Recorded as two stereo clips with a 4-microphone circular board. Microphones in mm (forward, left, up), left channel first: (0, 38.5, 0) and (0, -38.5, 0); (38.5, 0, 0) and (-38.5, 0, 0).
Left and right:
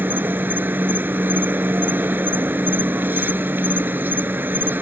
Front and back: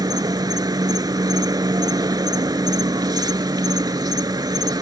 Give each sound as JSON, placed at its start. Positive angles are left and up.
{"t": 0.0, "sound": "an insect", "azimuth_deg": -150}